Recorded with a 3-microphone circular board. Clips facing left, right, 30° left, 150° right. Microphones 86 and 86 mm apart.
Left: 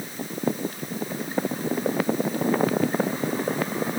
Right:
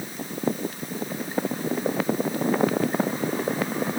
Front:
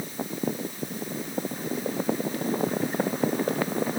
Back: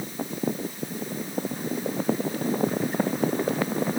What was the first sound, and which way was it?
Only background noise.